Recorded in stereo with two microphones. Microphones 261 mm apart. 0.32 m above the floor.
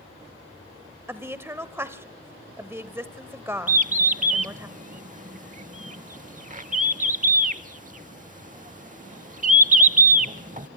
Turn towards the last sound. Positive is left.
turn(degrees=-30)  # may be behind; listen again after turning